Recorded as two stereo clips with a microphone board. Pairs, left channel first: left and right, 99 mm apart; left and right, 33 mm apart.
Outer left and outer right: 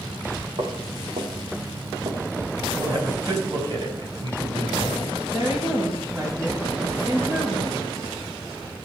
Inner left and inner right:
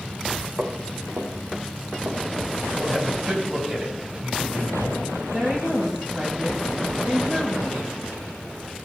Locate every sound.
0.6 s footsteps: 75° right (ahead or behind), 3.5 m; by 2.5 s 70° right (ahead or behind), 4.5 m
2.8 s a man speaking: 45° right (ahead or behind), 3.5 m
5.3 s a woman speaking: 20° right (ahead or behind), 2.5 m